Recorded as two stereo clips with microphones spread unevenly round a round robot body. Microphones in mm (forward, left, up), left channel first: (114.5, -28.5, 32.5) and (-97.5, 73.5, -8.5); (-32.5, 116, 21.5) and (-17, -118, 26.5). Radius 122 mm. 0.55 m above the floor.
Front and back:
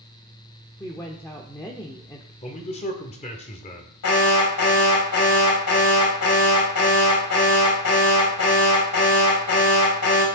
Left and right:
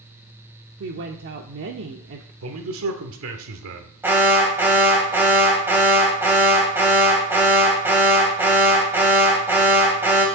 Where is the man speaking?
90° right, 1.7 m.